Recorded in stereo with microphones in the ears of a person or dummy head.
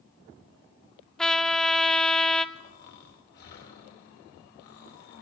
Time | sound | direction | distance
1.2 | a trumpet | 5° left (ahead or behind) | 0.8 m
2.5 | snoring | 50° left (ahead or behind) | 1.9 m